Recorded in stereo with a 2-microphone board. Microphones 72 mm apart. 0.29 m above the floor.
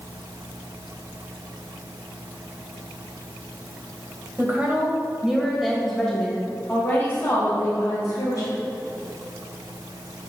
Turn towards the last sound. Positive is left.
turn(degrees=50)  # may be behind; listen again after turning